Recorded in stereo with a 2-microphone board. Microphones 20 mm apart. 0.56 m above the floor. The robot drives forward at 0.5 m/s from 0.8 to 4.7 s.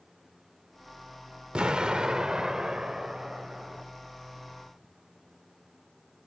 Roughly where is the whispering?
No whispering in this recording.